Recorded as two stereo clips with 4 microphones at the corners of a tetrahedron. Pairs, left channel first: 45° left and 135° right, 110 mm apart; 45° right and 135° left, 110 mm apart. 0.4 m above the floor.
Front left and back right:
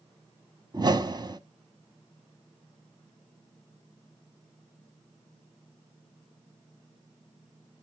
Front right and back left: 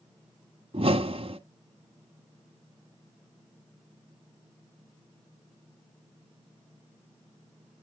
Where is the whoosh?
170° left, 1.0 m.